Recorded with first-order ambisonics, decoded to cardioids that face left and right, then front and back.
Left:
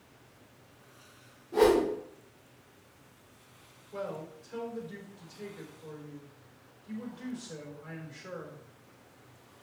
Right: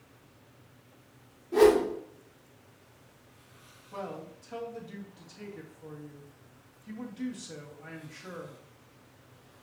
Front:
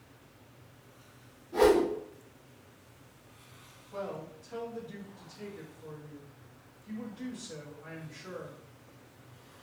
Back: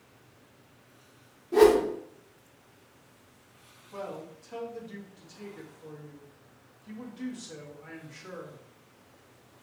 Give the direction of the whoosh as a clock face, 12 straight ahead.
5 o'clock.